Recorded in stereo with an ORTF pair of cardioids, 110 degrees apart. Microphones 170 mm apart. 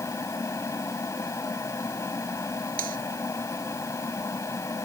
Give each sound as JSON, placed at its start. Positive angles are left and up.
{"t": 0.0, "sound": "a fan", "azimuth_deg": 20}
{"t": 2.8, "sound": "cutlery clinking", "azimuth_deg": -60}